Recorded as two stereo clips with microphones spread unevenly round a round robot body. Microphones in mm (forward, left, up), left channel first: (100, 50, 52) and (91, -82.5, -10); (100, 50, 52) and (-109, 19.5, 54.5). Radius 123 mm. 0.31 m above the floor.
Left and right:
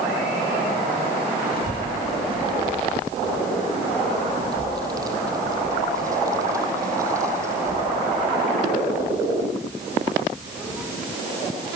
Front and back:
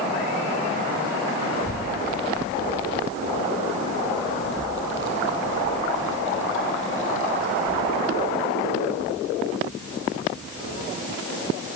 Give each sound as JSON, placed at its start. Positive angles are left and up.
{"t": 1.5, "sound": "a child speaking", "azimuth_deg": -45, "distance_m": 5.0}